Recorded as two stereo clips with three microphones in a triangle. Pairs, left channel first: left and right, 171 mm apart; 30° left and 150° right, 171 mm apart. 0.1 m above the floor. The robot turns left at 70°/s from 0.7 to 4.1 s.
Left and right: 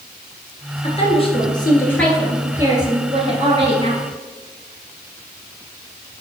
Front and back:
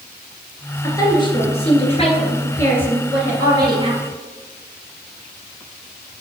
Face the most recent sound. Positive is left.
turn(degrees=-135)